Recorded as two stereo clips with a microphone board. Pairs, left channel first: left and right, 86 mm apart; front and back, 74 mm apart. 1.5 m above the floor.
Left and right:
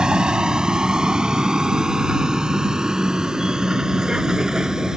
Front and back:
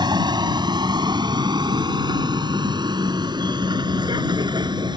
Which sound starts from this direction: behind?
A vehicle, at 0.0 s.